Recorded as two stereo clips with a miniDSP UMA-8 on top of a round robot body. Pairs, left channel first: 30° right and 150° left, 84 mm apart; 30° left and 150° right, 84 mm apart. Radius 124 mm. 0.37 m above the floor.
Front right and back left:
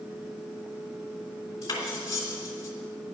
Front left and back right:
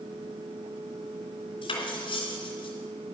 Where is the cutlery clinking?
25° left, 3 m.